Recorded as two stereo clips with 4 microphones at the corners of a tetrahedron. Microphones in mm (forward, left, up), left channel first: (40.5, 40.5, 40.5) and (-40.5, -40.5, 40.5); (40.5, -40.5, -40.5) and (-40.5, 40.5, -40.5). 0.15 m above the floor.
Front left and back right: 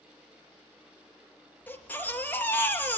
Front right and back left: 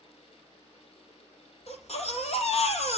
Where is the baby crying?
30° right, 3 m.